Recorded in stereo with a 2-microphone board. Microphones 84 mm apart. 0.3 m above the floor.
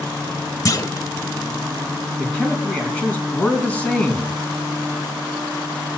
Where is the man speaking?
15° left (ahead or behind), 3.5 m.